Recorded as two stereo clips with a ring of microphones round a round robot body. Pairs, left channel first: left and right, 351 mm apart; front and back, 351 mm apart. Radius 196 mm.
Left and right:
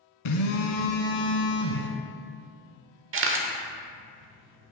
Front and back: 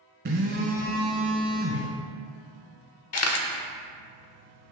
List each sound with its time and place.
0.2 s a phone buzzing: 115° left, 0.8 m
3.1 s a camera shutter: 40° right, 1.0 m